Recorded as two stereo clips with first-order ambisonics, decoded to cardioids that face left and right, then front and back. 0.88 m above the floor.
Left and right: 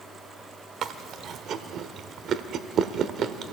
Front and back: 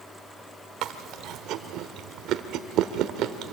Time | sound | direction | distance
0.8 | chewing | 145° right | 1.0 m